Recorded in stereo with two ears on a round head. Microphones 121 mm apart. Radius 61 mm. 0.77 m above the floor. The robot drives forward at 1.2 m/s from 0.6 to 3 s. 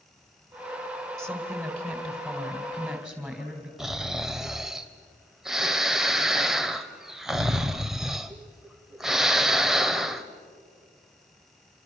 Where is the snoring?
5° right (ahead or behind), 1.0 m.